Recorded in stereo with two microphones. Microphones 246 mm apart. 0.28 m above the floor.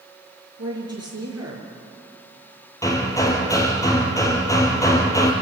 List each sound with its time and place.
0.6 s a woman speaking: 75° right (ahead or behind), 5.5 m
2.8 s hammering: 15° left (ahead or behind), 3 m